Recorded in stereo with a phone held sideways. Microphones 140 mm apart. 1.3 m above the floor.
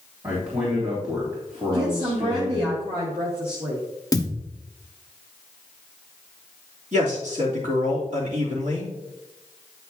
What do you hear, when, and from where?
0.2 s a man speaking: 25° right (ahead or behind), 2.5 m
1.7 s a woman speaking: 45° right (ahead or behind), 2 m
4.1 s a thud: 30° left (ahead or behind), 1.2 m
6.9 s a man speaking: 65° right (ahead or behind), 3 m